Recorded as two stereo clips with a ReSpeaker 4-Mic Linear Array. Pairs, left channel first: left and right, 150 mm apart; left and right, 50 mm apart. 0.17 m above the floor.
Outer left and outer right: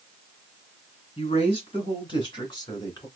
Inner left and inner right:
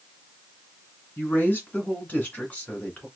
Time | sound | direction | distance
1.2 | a woman speaking | 40° left (ahead or behind) | 2 m